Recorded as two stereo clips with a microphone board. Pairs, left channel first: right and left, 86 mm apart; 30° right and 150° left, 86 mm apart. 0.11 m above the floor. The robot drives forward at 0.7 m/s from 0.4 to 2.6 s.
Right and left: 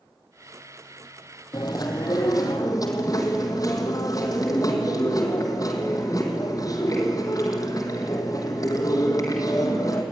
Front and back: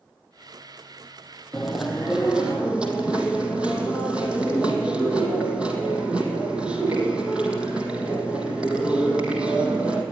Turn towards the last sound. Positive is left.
turn(degrees=-135)